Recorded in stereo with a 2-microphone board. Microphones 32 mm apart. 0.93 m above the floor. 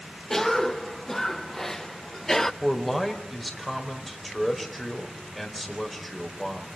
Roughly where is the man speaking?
Centre.